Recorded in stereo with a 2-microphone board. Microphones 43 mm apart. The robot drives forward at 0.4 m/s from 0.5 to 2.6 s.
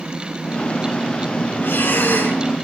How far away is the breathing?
About 7.5 m.